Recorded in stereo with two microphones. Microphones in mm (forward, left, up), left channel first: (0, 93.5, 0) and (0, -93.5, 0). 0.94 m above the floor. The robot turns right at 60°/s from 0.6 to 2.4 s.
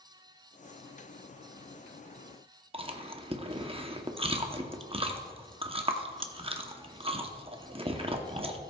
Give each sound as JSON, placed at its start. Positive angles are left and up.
{"t": 2.7, "sound": "chewing", "side_deg": -30, "distance_m": 0.8}